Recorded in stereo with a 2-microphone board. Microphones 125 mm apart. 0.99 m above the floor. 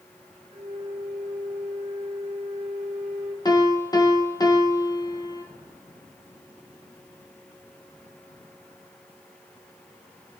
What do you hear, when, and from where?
0.5 s a flute: 70° right (ahead or behind), 2 m
3.5 s a piano: 30° left (ahead or behind), 1.1 m